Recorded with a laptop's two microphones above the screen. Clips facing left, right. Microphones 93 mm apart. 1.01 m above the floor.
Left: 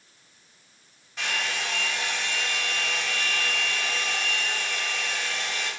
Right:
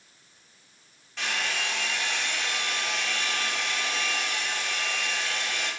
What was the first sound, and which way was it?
A hair dryer, 10° left (ahead or behind).